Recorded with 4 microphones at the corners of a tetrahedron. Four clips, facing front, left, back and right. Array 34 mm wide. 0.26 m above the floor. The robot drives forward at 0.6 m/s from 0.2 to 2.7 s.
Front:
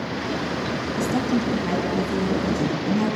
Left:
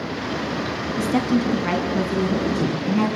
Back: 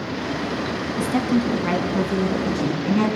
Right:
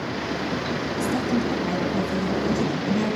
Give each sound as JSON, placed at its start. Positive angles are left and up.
{"t": 1.0, "sound": "a woman speaking", "azimuth_deg": 120, "distance_m": 1.7}